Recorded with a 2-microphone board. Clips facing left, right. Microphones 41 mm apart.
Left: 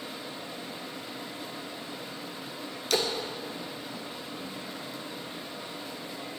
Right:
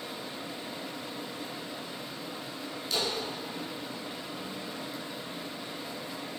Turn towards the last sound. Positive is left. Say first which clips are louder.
# left 4 dB
turn(degrees=80)